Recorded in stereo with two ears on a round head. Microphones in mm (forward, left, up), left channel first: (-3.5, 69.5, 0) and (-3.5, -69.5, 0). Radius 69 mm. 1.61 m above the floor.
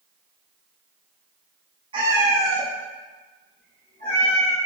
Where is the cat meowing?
35° right (ahead or behind), 0.9 m; by 4.5 s 60° left (ahead or behind), 2.5 m.